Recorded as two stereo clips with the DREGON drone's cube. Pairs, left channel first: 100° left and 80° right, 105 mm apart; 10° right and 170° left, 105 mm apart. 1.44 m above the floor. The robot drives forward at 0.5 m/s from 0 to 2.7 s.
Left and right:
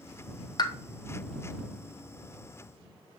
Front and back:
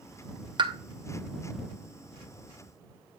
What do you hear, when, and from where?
0.6 s a pop: 135° left, 0.5 m; by 0.7 s 140° left, 0.6 m